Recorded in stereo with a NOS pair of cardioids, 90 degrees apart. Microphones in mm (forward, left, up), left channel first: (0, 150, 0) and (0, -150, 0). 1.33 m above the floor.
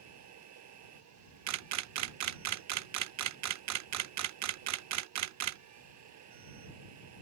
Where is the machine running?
60° right.